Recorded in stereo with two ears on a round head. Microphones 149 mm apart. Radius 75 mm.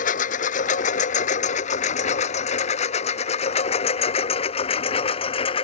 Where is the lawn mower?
55° left (ahead or behind); by 5.7 s 35° left (ahead or behind).